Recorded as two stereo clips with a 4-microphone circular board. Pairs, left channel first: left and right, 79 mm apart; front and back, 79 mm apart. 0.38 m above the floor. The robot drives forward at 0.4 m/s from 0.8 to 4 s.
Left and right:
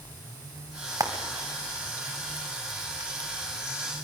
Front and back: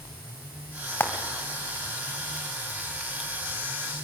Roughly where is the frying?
Ahead right.